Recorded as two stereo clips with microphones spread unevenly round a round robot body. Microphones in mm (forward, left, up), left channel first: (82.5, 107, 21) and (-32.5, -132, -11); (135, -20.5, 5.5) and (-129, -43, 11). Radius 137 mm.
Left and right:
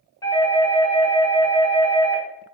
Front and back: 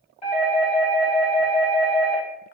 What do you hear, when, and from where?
0.2 s a doorbell: 10° right, 1.9 m